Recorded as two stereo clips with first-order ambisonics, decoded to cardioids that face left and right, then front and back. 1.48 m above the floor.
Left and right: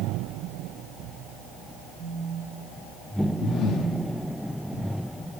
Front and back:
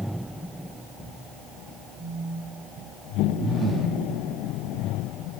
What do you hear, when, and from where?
2.0 s a phone buzzing: 175° right, 3 m
3.4 s breathing: 115° left, 1.2 m